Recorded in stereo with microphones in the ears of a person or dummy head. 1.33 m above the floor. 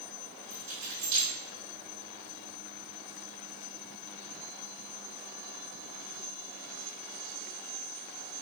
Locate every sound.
0.5 s keys jangling: 60° right (ahead or behind), 3 m